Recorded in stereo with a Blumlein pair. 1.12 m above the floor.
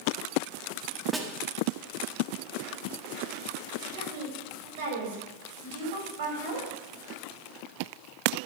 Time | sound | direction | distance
1.1 | a snare drum | 5° right | 1.6 m
3.9 | a woman speaking | 55° right | 6 m